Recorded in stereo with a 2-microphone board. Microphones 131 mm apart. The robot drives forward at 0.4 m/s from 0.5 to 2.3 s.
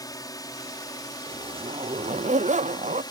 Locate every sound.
0.0 s a drone: 30° left (ahead or behind); by 3.1 s 35° left (ahead or behind)
1.3 s a zipper: 40° right (ahead or behind); by 3.0 s 75° right (ahead or behind)